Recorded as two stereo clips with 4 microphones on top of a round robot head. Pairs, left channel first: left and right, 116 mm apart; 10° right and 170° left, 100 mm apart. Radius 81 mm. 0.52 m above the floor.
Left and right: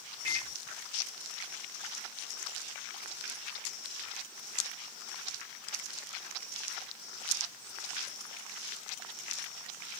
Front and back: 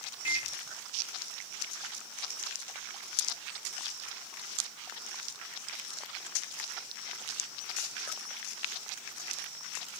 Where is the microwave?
40° right, 1.7 m.